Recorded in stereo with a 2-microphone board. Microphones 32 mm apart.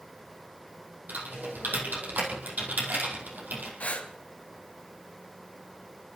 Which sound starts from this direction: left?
Breathing, at 3.8 s.